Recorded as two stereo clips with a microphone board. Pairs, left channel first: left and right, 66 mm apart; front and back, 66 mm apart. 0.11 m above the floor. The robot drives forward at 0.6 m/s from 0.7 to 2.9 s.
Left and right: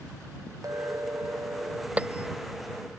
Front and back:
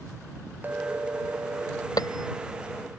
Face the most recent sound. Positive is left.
turn(degrees=-20)